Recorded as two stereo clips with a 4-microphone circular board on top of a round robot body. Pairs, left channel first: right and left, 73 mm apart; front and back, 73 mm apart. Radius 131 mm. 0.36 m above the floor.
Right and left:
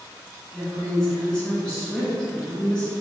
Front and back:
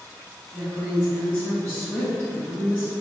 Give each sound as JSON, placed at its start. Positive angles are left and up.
{"t": 0.5, "sound": "a woman speaking", "azimuth_deg": -25, "distance_m": 1.1}